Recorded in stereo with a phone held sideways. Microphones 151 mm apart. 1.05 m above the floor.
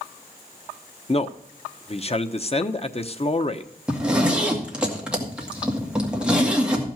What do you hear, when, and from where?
1.1 s a man speaking: 45° left (ahead or behind), 0.8 m
3.9 s a zipper: 5° right (ahead or behind), 2 m